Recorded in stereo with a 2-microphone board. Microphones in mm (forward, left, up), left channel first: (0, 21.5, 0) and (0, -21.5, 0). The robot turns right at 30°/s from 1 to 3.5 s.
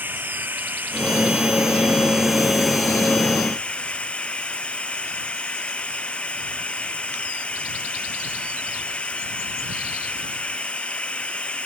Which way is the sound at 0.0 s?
50° right.